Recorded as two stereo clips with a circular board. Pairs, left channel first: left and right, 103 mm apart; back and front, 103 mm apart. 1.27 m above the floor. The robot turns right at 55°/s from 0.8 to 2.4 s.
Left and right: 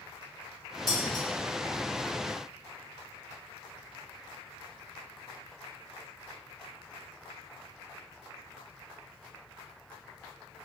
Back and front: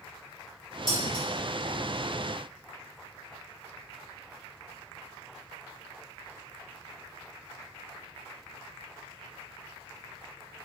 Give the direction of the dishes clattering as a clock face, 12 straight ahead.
11 o'clock.